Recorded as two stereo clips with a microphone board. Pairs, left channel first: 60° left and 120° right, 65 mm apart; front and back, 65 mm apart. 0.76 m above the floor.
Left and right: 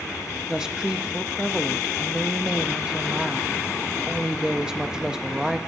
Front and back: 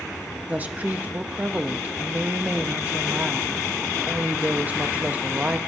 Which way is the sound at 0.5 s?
175° left.